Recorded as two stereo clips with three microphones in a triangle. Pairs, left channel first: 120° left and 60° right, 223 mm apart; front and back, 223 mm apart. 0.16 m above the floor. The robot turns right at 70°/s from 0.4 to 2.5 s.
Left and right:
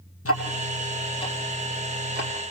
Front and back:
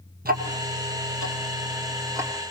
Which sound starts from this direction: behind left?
Ticking, at 0.2 s.